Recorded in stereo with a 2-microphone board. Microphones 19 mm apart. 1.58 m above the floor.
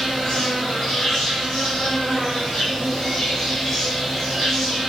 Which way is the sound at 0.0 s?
30° left (ahead or behind).